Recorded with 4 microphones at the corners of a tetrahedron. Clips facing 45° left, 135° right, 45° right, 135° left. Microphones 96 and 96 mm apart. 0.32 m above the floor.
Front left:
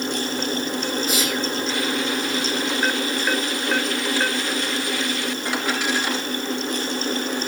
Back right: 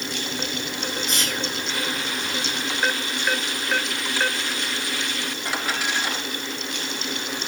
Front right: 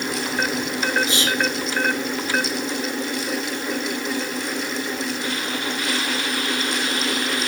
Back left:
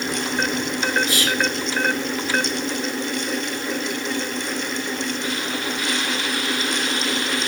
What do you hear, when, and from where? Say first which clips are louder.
1.1 s whispering: front left 4 dB, even; 35° right, 0.9 m